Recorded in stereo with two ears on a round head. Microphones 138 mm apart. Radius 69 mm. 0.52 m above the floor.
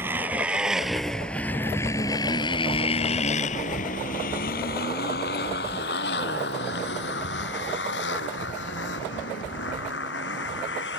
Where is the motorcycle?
15° right (ahead or behind); by 11.0 s 85° left.